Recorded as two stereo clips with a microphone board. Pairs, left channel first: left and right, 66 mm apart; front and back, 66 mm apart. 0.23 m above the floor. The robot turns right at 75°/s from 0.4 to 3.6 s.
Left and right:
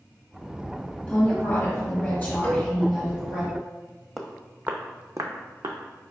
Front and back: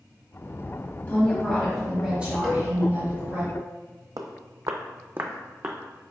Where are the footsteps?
175° right, 0.6 m; by 5.8 s 100° right, 0.8 m.